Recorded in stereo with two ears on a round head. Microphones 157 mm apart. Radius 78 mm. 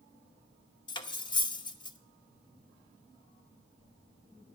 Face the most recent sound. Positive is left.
turn(degrees=30)  # may be behind; listen again after turning